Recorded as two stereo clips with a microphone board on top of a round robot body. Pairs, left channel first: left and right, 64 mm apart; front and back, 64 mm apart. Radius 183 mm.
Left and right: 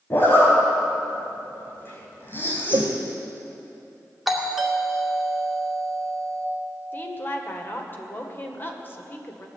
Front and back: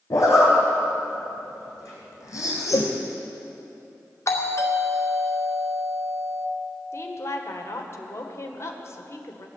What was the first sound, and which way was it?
A zipper, 35° left.